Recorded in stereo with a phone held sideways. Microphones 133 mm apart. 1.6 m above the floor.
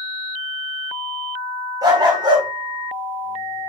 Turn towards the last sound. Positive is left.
turn(degrees=-40)  # may be behind; listen again after turning